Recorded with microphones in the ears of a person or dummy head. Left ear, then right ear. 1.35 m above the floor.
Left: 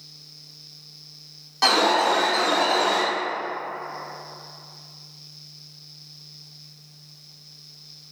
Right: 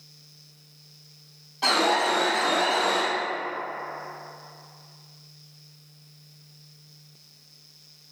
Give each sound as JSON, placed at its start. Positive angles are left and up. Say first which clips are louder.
{"t": 1.6, "sound": "an alarm", "louder": "left 3 dB", "side_deg": 65, "distance_m": 0.7}